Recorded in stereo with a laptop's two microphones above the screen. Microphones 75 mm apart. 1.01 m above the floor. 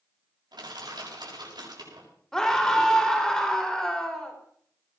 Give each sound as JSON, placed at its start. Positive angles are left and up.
{"t": 0.5, "sound": "crushing", "side_deg": -75, "distance_m": 7.0}
{"t": 2.3, "sound": "a scream", "side_deg": 10, "distance_m": 3.0}